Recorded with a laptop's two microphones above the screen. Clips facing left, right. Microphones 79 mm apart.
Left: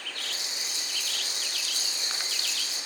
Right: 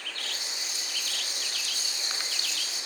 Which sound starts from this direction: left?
A rattle, at 0.2 s.